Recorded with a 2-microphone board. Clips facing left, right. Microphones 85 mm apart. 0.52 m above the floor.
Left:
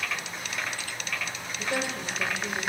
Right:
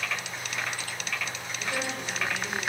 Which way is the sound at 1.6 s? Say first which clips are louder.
Left 2 dB; 40° left (ahead or behind).